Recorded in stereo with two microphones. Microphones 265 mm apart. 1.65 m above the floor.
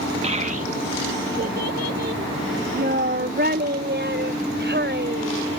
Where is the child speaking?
25° right (ahead or behind); by 5.5 s 40° right (ahead or behind).